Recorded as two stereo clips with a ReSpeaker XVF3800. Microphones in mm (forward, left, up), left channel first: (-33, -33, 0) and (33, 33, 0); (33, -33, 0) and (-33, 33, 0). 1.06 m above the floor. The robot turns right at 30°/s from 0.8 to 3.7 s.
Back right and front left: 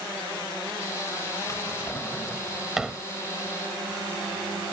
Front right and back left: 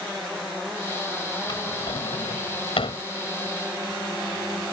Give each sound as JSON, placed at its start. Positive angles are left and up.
{"t": 1.5, "sound": "a drawer", "azimuth_deg": -80}